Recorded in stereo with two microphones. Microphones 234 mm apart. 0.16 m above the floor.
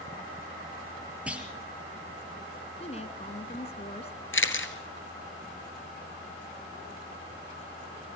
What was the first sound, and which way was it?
A clunk, 5° right (ahead or behind).